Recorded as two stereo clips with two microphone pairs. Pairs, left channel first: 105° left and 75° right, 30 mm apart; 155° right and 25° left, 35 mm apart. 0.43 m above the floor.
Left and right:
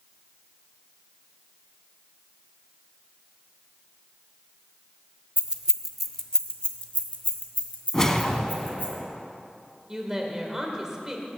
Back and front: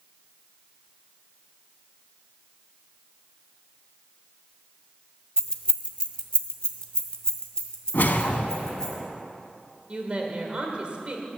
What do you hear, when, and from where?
5.4 s keys jangling: 100° right, 0.7 m; by 8.9 s 135° left, 2.5 m
7.9 s a whoosh: straight behind, 1.0 m
9.9 s a woman speaking: 10° right, 1.8 m